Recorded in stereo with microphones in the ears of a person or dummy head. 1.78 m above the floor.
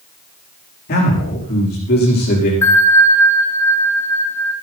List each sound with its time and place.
0.9 s a man speaking: 50° left (ahead or behind), 5 m
2.6 s a bell: 15° left (ahead or behind), 1.9 m